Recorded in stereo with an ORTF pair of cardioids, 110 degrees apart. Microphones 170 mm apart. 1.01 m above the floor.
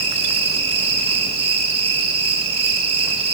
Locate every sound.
0.0 s an insect: 35° right, 6 m